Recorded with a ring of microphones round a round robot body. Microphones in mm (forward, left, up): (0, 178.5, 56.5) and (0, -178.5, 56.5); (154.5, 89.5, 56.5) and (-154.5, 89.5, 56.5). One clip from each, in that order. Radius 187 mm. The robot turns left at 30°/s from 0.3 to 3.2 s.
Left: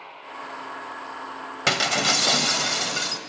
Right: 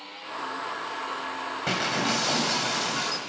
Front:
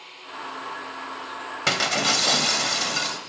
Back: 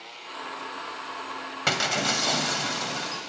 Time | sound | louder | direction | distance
1.7 | breaking glass | left 6 dB, front 3 dB | 65° left | 2 m